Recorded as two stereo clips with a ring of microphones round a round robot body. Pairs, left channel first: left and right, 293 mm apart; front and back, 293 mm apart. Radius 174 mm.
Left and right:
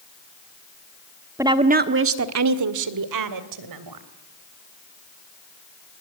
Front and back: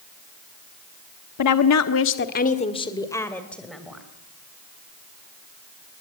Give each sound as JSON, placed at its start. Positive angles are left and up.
{"t": 1.4, "sound": "a woman speaking", "azimuth_deg": -10, "distance_m": 1.4}